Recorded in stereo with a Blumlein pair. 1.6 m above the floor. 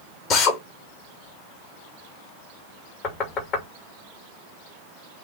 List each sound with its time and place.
0.3 s a drill: 35° left, 2.5 m
3.0 s knocking: 35° left, 2.5 m